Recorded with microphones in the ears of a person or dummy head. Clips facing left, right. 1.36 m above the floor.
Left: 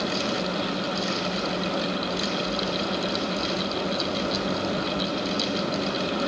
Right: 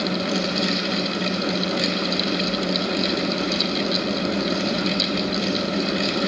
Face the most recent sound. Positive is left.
No sound to turn to.